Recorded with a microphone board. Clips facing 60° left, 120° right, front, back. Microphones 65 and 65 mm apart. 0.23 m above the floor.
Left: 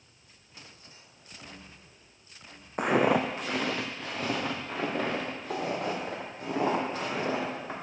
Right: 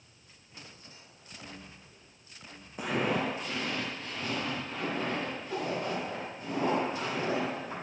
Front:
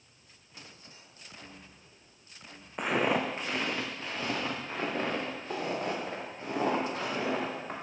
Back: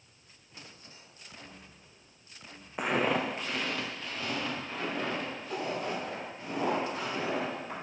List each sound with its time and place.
2.8 s footsteps: 95° left, 0.7 m; by 7.7 s 45° left, 4 m